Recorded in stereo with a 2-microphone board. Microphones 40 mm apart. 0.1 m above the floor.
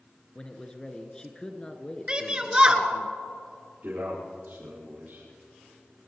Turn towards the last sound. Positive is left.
turn(degrees=-50)  # may be behind; listen again after turning